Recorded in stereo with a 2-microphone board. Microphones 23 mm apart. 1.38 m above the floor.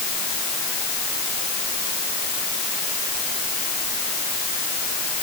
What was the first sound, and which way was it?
Only background noise.